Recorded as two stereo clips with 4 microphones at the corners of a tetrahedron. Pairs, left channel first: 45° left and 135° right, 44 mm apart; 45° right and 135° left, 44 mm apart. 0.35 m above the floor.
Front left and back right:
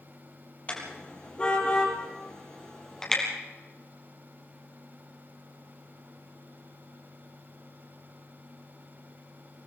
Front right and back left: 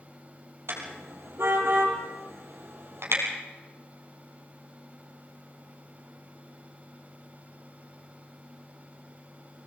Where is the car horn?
105° left, 5 m; by 3.2 s 120° left, 5 m.